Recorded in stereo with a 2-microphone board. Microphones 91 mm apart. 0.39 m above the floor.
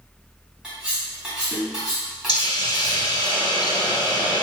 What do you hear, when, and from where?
0.6 s cutlery clinking: 10° right (ahead or behind), 1.7 m
2.3 s a hiss: 55° left (ahead or behind), 0.9 m